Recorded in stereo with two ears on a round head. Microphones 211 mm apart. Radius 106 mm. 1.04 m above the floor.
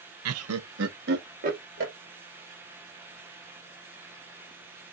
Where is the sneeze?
I don't hear a sneeze.